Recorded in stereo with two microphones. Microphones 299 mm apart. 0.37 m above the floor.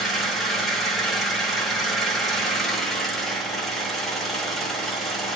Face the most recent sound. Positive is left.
turn(degrees=0)  # may be behind; listen again after turning